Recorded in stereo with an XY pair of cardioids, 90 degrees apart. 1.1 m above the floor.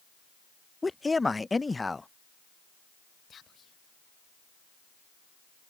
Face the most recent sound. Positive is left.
turn(degrees=55)